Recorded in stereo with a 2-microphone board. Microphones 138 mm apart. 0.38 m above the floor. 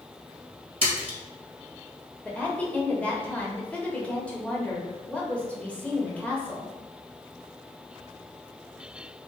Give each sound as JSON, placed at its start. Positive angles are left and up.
{"t": 0.8, "sound": "a splash", "side_deg": -45, "distance_m": 1.7}
{"t": 2.2, "sound": "a woman speaking", "side_deg": 10, "distance_m": 1.3}